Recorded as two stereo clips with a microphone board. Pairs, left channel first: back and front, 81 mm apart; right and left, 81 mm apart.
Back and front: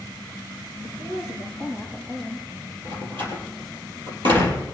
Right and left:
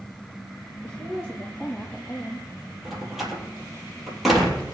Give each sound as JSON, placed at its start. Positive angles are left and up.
{"t": 0.8, "sound": "a woman speaking", "azimuth_deg": -25, "distance_m": 7.0}
{"t": 2.9, "sound": "a door slam", "azimuth_deg": 5, "distance_m": 3.5}